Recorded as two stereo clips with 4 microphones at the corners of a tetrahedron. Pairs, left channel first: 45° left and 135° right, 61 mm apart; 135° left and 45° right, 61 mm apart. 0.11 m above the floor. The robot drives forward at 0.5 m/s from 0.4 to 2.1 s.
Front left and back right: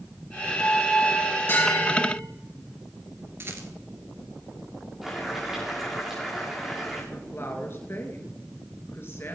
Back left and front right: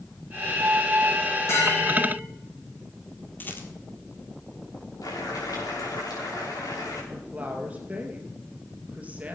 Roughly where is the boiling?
Behind left.